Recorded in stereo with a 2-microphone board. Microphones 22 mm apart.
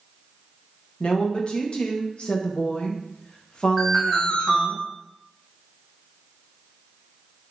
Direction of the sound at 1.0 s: 50° left (ahead or behind).